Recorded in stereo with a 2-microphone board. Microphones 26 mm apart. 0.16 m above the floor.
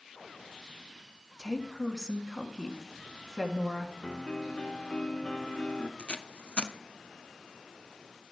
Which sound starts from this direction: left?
Tape being pulled, at 6.0 s.